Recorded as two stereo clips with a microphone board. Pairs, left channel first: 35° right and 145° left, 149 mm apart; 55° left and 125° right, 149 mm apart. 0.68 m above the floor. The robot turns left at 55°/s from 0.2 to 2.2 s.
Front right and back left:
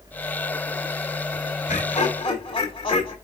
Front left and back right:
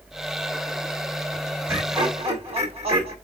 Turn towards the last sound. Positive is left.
turn(degrees=-85)